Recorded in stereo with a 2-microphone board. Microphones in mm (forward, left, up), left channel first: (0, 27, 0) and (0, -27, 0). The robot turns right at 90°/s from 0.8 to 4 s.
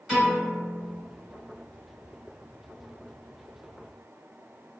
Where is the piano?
15° left (ahead or behind), 1.5 m.